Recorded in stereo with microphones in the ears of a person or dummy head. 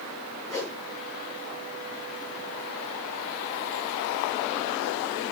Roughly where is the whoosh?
Centre.